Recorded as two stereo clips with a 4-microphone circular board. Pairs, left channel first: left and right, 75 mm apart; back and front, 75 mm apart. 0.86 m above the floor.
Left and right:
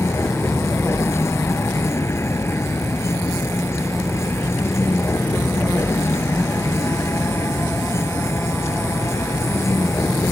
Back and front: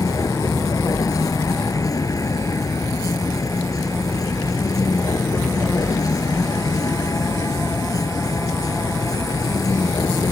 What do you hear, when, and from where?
0.0 s a vehicle: 145° left